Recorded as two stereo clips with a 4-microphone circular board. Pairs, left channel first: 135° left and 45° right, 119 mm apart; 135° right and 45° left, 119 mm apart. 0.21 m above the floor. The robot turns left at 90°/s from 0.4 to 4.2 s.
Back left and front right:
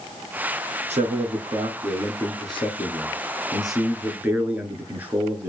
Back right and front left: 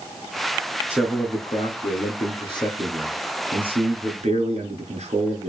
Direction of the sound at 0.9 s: 30° right.